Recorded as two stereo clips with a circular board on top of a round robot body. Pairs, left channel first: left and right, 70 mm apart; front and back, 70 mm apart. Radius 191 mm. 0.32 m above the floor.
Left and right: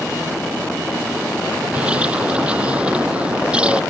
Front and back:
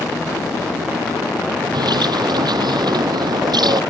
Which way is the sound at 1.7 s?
165° right.